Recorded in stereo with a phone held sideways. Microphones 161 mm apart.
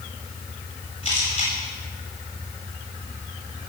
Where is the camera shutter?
35° left (ahead or behind), 9.5 m.